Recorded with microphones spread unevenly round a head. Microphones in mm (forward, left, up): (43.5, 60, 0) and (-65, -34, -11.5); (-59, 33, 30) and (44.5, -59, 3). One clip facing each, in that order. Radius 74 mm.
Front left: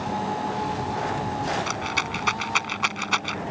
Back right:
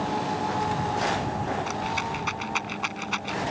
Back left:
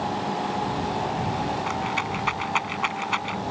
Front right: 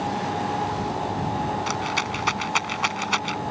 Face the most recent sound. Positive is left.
turn(degrees=10)